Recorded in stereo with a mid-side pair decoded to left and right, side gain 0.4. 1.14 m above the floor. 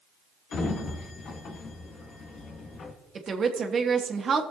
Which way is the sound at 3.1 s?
50° right.